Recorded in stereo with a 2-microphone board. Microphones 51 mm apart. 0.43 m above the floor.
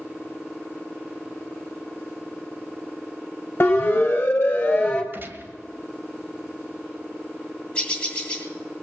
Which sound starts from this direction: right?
A gunshot, at 5.1 s.